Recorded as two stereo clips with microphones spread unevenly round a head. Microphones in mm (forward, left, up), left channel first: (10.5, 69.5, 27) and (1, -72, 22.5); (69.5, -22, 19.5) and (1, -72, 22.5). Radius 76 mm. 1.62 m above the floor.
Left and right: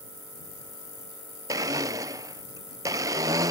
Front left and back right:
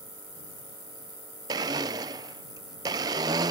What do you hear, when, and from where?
1.5 s a blender: 155° right